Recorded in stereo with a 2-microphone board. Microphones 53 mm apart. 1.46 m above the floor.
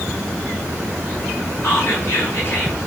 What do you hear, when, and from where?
1.6 s whispering: 45° left (ahead or behind), 6 m